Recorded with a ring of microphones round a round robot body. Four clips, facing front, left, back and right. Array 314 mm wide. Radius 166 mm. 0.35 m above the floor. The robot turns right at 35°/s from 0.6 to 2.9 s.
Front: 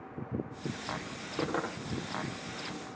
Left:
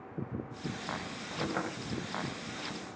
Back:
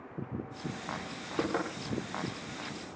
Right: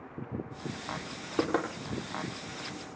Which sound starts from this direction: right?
Knocking, at 1.4 s.